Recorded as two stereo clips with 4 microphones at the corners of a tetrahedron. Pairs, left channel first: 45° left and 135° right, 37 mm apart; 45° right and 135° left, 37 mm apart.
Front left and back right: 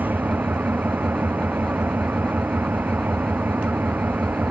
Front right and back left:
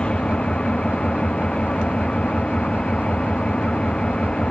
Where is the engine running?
105° right.